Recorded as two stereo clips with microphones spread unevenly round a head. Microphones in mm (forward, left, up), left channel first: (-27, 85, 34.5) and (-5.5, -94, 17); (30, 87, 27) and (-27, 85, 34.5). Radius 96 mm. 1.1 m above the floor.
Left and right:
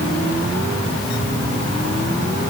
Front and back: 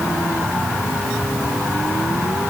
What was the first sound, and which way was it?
Only background noise.